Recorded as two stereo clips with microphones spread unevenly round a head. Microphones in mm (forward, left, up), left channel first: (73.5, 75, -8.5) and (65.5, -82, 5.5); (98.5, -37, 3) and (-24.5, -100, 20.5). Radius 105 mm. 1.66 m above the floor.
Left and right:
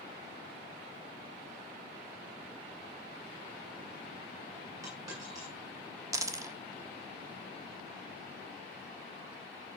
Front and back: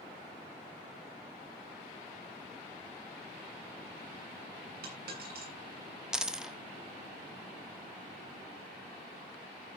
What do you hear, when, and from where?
4.8 s a dropped coin: 170° right, 8.5 m
6.1 s a dropped coin: 90° right, 1.2 m